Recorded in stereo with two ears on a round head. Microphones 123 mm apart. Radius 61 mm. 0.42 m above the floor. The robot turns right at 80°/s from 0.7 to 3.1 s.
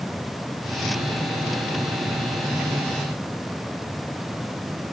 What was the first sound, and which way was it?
Only background noise.